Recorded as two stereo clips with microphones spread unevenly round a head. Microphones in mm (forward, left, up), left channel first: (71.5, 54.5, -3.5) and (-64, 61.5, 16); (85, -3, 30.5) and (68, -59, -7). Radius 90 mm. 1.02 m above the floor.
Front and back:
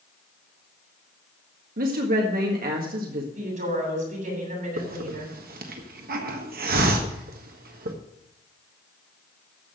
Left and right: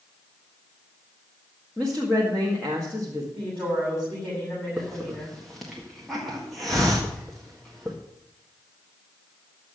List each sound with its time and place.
1.8 s a woman speaking: 170° left, 1.8 m
3.4 s a woman speaking: 155° left, 8 m
4.8 s a hiss: straight behind, 1.5 m